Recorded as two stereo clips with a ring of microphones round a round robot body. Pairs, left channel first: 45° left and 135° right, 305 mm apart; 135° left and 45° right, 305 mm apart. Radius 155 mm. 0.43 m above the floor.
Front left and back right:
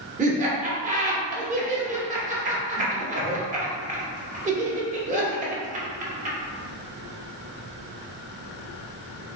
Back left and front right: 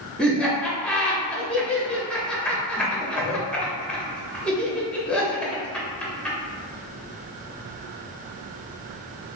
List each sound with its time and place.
0.2 s laughter: 145° right, 0.9 m